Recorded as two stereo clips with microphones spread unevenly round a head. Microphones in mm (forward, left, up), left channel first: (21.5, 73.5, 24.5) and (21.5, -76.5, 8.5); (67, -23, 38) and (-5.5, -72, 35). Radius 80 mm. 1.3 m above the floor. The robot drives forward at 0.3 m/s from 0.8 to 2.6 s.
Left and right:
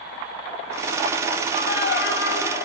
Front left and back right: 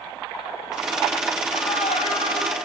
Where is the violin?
75° left, 3.5 m; by 2.5 s 80° left, 3 m.